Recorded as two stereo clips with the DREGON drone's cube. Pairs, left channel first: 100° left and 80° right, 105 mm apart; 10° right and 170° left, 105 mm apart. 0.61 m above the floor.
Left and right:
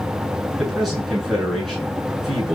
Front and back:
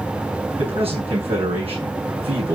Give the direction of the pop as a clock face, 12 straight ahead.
No pop in this recording.